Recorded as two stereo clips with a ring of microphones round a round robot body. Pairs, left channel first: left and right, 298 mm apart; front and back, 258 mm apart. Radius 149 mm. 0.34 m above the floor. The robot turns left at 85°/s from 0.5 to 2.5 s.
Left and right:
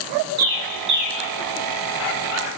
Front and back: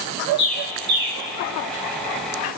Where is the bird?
110° right, 1.9 m; by 1.2 s 165° right, 1.9 m.